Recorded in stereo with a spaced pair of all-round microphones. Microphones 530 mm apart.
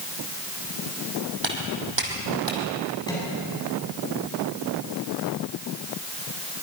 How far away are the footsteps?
About 4.5 m.